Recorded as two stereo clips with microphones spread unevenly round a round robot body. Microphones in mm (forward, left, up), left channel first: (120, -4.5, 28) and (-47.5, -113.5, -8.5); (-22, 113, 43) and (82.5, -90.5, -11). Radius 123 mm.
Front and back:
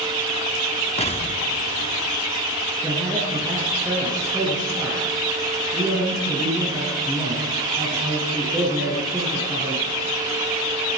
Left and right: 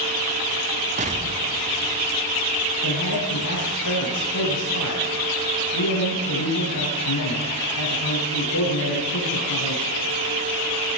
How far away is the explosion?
About 1.4 m.